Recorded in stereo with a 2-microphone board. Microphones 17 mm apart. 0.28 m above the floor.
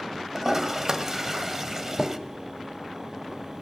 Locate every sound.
0.3 s a toilet flushing: 35° right (ahead or behind), 1.5 m